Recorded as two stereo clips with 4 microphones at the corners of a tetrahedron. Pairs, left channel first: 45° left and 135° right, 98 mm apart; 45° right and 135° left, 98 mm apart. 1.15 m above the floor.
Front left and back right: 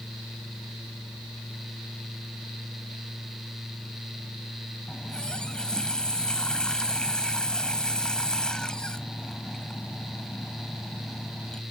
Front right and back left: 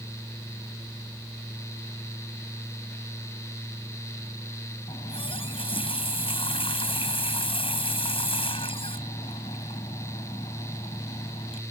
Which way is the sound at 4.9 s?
35° right.